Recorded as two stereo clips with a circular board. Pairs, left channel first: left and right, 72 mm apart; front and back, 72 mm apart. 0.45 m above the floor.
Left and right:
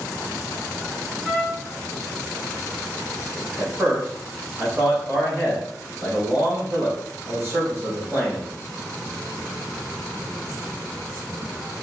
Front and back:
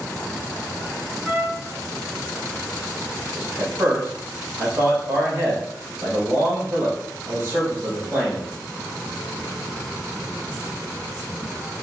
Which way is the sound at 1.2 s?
160° right.